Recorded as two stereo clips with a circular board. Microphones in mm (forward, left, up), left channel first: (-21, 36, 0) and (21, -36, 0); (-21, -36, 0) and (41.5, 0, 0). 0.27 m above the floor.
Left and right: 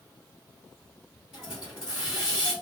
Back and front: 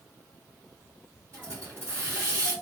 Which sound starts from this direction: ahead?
A hiss, at 1.3 s.